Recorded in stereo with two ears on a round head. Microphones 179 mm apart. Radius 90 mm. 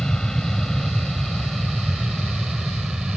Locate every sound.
0.0 s an aircraft: 5° left (ahead or behind); by 3.2 s 5° right (ahead or behind)